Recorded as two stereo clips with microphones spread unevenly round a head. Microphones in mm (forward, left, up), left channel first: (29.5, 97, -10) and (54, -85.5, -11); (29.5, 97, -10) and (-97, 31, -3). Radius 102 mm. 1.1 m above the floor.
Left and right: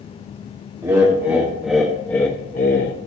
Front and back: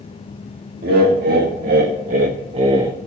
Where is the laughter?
155° right, 2 m; by 3.0 s 135° left, 0.9 m.